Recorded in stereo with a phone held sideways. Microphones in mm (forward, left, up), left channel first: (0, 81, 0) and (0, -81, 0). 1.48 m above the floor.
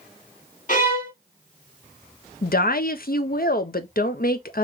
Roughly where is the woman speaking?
Left.